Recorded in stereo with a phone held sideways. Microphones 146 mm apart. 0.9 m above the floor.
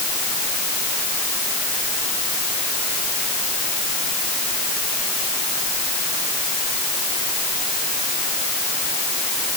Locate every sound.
Only background noise.